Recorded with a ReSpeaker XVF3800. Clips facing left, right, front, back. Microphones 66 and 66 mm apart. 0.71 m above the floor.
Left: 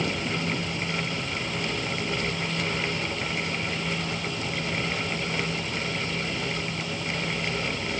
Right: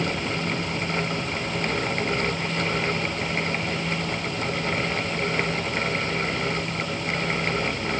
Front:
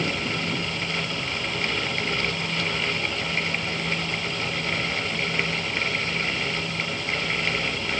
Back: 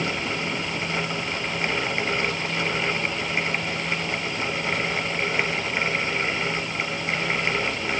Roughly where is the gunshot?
No gunshot in this recording.